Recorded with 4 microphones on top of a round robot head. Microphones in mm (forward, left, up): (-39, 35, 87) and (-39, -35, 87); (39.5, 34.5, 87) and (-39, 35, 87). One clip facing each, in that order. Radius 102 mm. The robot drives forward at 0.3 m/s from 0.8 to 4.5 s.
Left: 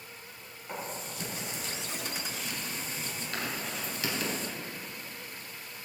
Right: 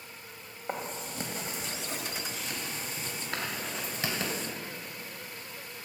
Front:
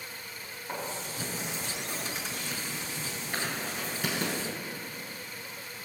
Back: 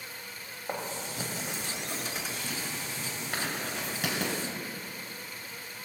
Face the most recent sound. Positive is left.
turn(degrees=-150)